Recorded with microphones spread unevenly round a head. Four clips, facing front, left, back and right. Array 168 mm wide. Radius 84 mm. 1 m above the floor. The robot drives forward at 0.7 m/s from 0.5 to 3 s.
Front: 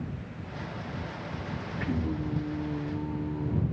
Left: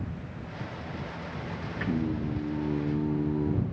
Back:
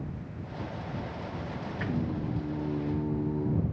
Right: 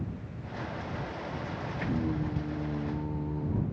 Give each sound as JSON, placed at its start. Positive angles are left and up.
{"t": 1.8, "sound": "singing", "azimuth_deg": 100, "distance_m": 5.0}